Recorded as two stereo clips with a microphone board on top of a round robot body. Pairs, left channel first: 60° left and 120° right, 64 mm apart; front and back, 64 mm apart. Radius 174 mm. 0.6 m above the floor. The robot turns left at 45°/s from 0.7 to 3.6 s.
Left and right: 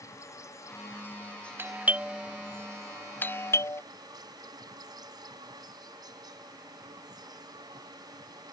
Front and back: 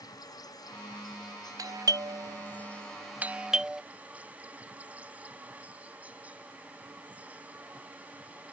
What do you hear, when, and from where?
0.0 s an insect: 20° left; by 8.5 s 110° right
1.6 s a doorbell: 170° right; by 3.8 s 100° left